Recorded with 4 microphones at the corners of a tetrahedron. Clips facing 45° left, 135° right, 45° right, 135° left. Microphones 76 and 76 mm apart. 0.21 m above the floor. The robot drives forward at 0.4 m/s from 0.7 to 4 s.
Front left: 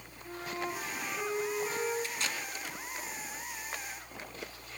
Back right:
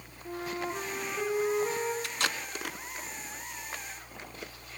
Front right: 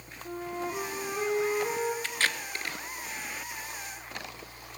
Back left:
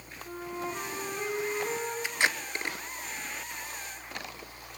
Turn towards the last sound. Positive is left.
turn(degrees=-170)